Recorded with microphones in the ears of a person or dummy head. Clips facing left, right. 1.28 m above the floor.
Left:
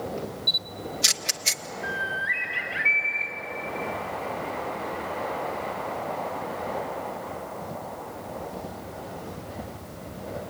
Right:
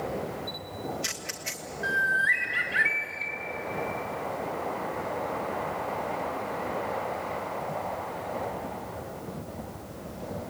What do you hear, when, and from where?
0.5 s a camera shutter: 50° left (ahead or behind), 1.2 m
1.8 s a bird: 25° right (ahead or behind), 2.5 m